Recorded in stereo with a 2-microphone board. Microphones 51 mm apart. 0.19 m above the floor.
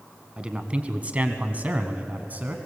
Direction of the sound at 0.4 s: 20° right (ahead or behind).